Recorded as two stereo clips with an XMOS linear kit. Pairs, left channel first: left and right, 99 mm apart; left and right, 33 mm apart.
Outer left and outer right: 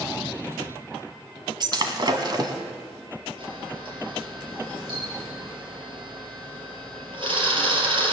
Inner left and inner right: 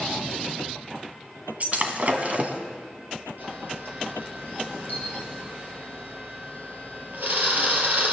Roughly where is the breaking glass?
Right.